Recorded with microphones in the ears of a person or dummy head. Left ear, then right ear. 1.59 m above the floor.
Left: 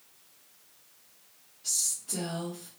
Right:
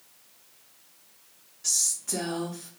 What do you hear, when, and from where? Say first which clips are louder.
1.6 s a woman speaking: right 4 dB; 50° right (ahead or behind), 0.8 m